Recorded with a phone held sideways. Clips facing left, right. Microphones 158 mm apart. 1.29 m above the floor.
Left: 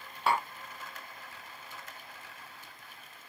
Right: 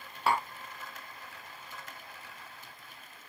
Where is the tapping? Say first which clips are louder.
Even; centre (ahead or behind), 0.6 m.